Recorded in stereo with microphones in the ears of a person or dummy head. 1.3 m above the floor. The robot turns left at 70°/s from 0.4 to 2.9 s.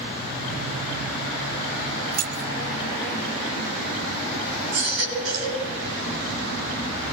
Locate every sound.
2.1 s keys jangling: 50° right (ahead or behind), 1.9 m; by 2.5 s 70° right (ahead or behind), 1.9 m
4.7 s a baby crying: 85° right, 8 m